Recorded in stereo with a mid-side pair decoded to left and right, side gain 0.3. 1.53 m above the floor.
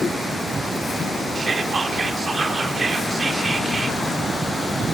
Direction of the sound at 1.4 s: 50° right.